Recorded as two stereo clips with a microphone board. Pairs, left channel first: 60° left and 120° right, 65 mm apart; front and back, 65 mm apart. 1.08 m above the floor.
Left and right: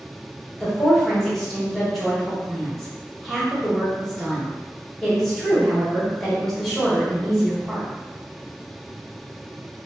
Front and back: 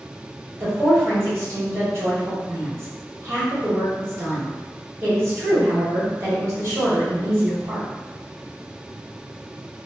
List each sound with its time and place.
0.6 s a woman speaking: 145° left, 1.4 m